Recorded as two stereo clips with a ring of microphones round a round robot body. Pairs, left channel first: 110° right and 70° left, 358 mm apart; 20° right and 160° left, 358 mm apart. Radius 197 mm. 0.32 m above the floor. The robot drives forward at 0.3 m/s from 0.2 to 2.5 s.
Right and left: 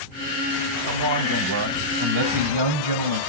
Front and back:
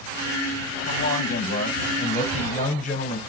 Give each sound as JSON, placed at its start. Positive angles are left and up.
{"t": 0.8, "sound": "a man speaking", "azimuth_deg": 35, "distance_m": 3.0}